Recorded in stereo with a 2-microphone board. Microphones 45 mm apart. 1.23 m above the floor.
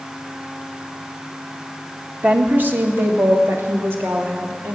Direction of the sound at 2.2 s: 40° right (ahead or behind).